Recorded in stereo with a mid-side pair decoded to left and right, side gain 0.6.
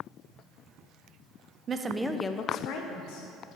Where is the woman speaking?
35° right, 0.7 m; by 3.3 s 80° left, 1.3 m.